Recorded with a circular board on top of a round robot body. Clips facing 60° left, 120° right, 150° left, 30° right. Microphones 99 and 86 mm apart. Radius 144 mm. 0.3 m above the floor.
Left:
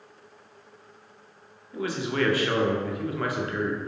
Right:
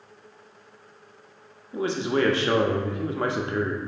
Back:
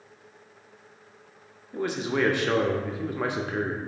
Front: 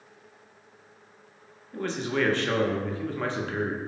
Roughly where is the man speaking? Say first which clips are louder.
Right 3 dB, back 1 dB; behind right.